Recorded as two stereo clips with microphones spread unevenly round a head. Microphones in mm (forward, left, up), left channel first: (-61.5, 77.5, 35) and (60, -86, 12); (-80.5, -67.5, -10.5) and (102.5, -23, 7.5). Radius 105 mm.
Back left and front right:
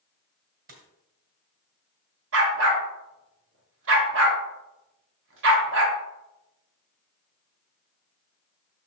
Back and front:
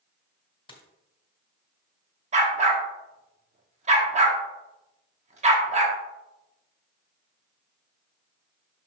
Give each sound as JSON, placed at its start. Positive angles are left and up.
{"t": 0.7, "sound": "a dropped coin", "azimuth_deg": -100, "distance_m": 1.8}
{"t": 2.3, "sound": "a dog barking", "azimuth_deg": -25, "distance_m": 1.3}